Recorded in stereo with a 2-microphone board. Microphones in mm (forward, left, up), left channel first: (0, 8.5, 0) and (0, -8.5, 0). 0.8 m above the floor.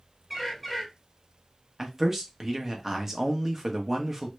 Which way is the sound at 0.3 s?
10° right (ahead or behind).